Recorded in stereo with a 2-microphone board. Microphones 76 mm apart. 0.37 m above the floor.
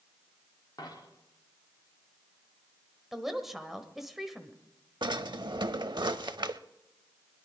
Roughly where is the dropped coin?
Left.